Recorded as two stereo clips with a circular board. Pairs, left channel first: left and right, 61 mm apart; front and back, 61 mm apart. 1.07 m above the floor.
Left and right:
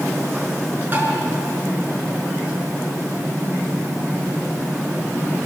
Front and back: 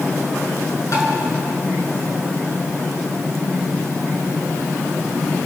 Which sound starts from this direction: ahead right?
Tapping, at 0.9 s.